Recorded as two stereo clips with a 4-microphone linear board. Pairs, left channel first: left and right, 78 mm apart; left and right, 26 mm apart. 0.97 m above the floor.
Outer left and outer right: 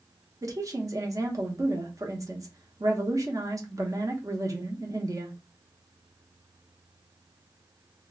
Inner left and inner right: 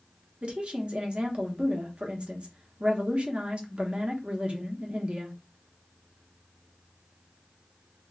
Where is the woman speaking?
45° right (ahead or behind), 0.8 m.